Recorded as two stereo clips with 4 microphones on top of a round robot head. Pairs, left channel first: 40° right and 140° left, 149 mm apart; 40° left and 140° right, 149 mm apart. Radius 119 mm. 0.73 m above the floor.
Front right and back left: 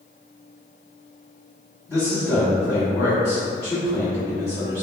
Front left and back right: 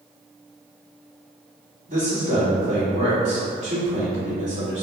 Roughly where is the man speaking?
Right.